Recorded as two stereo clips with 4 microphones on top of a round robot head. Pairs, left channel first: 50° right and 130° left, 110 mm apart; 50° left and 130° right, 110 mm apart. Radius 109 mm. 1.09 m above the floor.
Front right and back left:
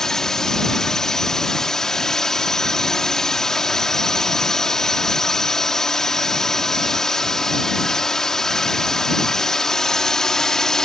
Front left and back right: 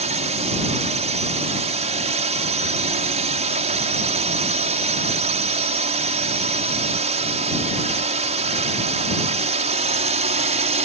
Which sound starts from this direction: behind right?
A drone, at 0.0 s.